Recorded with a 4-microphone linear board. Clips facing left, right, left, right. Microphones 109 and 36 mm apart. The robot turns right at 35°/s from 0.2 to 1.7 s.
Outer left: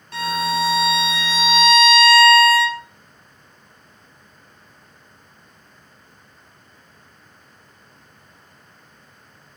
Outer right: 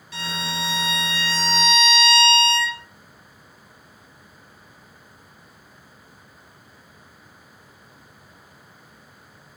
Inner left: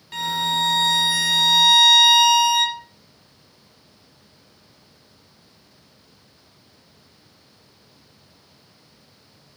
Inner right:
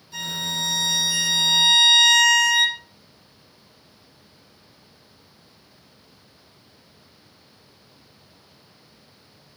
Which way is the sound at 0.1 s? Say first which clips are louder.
Outer left 9 dB, inner left 6 dB; 125° left.